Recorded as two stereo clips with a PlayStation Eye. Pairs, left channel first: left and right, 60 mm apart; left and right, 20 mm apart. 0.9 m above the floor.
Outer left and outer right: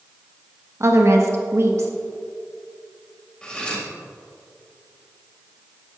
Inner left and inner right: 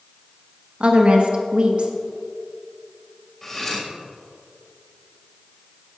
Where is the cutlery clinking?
15° left (ahead or behind), 3 m.